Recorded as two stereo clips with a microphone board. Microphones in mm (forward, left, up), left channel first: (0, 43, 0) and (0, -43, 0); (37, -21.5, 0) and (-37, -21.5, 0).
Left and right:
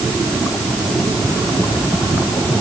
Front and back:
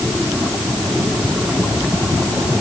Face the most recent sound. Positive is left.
No sound to turn to.